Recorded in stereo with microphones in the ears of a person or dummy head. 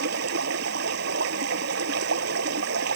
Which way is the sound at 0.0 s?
70° right (ahead or behind).